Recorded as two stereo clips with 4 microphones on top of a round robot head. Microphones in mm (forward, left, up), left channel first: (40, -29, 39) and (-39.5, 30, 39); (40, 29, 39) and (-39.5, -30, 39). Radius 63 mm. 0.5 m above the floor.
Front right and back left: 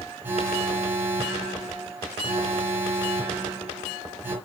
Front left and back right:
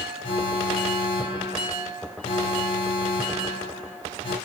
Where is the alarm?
75° left, 7 m.